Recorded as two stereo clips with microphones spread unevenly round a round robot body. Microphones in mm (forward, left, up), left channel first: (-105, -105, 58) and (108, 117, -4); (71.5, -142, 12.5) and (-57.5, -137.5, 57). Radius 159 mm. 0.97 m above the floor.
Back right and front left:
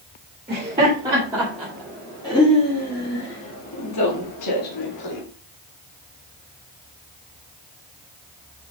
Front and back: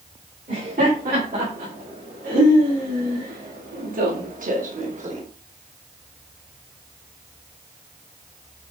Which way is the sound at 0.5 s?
120° left.